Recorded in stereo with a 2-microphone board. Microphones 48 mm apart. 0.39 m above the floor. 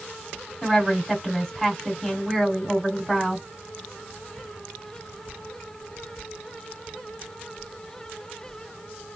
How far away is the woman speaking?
About 2.5 m.